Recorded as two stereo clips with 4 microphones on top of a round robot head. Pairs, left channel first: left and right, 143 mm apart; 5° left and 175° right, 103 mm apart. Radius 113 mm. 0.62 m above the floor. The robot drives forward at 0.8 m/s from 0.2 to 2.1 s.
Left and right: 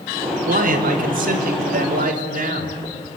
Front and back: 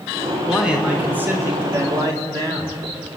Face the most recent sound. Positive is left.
turn(degrees=-115)